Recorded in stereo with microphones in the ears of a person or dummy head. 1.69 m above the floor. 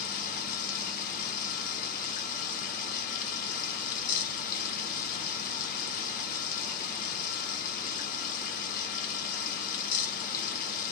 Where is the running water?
55° left (ahead or behind), 0.8 m.